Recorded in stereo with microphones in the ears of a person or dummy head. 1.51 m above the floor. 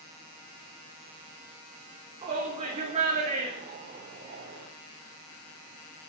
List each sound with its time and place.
2.2 s a shout: 25° right (ahead or behind), 3.5 m; by 4.7 s 45° right (ahead or behind), 4.5 m